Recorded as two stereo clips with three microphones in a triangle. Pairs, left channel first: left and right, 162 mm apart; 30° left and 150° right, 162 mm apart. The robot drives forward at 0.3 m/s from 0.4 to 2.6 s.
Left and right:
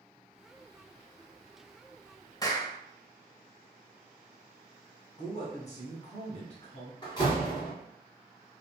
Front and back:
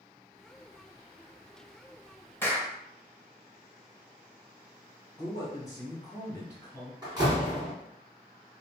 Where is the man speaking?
90° left, 1.2 m.